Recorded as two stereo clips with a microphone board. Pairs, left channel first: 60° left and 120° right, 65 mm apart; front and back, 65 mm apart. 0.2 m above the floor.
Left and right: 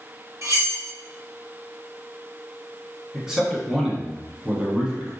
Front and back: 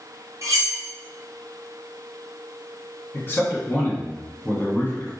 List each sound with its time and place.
0.4 s cutlery clinking: 150° right, 1.6 m
3.1 s a man speaking: 40° right, 1.6 m